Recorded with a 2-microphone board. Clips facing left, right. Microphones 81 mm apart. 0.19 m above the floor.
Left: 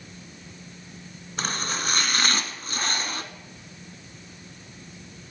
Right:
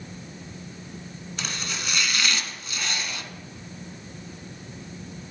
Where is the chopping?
40° left (ahead or behind), 1.0 m.